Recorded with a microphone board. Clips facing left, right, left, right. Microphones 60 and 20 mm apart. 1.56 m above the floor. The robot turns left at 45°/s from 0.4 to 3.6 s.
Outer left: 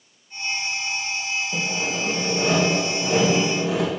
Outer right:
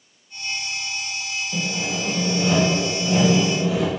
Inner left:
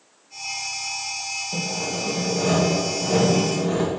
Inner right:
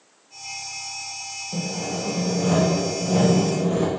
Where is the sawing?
165° left, 1.6 m; by 3.9 s 70° left, 1.6 m.